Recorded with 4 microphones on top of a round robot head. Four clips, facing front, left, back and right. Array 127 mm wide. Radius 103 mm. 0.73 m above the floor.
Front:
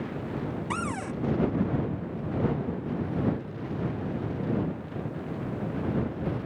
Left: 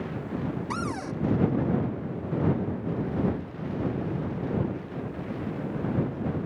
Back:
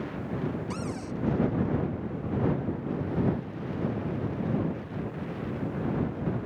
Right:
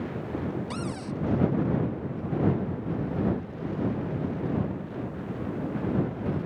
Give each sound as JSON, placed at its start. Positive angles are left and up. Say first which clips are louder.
{"t": 0.7, "sound": "a cupboard door", "louder": "left 2 dB, front 2 dB", "azimuth_deg": 40}